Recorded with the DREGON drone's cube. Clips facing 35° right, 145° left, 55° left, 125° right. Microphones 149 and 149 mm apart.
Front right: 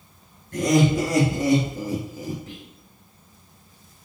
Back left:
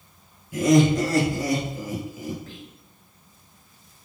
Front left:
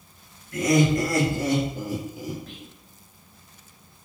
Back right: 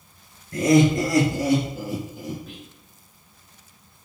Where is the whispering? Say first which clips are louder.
Front right 1 dB, back right 1 dB; 55° right, 1.6 m.